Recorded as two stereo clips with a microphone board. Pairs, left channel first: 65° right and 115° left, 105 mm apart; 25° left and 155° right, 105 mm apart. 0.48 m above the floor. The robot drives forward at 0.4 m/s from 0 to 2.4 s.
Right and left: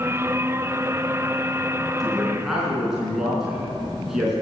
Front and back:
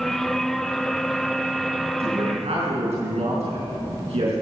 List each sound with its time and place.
2.0 s a man speaking: 160° right, 4.5 m